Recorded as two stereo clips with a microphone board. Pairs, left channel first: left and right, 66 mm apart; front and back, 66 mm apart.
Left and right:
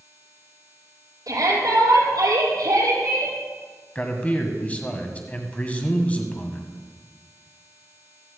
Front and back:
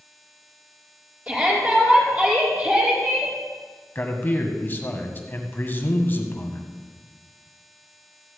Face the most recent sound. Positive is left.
turn(degrees=35)